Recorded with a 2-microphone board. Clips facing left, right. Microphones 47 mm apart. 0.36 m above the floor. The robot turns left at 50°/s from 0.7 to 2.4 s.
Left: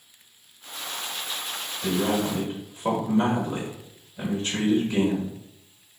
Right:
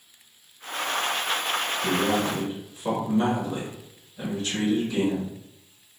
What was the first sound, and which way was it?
A man speaking, 30° left (ahead or behind).